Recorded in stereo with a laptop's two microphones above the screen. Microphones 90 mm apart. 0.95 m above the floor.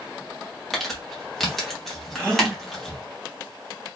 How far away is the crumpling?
About 1.0 m.